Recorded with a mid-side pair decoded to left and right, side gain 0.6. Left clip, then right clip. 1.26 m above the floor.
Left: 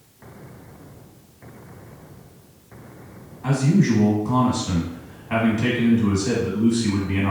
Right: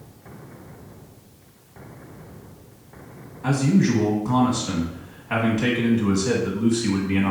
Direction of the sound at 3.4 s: 10° right.